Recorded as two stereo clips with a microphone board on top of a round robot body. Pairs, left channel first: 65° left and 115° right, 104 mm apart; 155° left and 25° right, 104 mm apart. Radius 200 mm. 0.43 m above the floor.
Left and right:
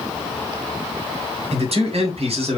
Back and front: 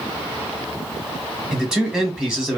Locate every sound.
1.5 s a man speaking: 105° right, 3 m